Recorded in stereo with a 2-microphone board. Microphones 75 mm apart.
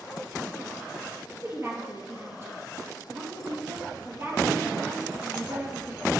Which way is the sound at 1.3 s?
35° right (ahead or behind).